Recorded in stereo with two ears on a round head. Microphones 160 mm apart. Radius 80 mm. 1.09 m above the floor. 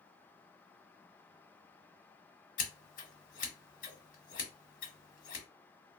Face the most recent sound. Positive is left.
turn(degrees=45)  # may be behind; listen again after turning